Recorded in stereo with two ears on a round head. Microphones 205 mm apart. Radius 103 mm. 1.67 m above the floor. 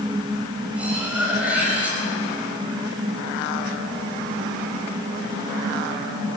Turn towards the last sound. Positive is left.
turn(degrees=-5)  # may be behind; listen again after turning